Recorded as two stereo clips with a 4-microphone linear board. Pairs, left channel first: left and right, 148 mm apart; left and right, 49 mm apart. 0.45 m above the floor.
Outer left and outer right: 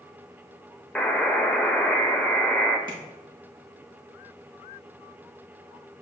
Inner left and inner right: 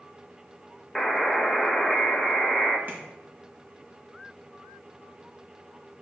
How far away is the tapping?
About 2.5 m.